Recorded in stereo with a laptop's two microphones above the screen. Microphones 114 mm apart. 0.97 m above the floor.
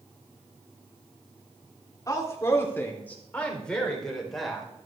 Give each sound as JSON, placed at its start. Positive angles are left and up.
{"t": 2.1, "sound": "a woman speaking", "side_deg": 30, "distance_m": 3.0}